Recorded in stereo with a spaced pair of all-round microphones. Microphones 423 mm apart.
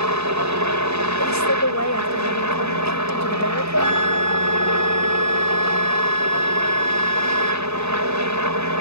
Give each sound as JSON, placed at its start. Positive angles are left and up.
{"t": 0.0, "sound": "a helicopter", "side_deg": -40}
{"t": 1.2, "sound": "a woman speaking", "side_deg": 35}
{"t": 3.8, "sound": "a flute", "side_deg": 40}